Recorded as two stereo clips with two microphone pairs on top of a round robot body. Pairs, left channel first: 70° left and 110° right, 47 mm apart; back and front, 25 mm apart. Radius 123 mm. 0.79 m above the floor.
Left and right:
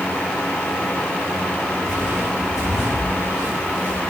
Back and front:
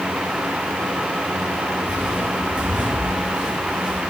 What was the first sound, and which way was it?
Footsteps, 30° right.